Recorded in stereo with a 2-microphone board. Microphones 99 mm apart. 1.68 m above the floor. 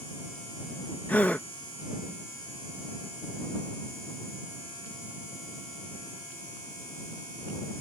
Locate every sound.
1.1 s a gasp: 15° left (ahead or behind)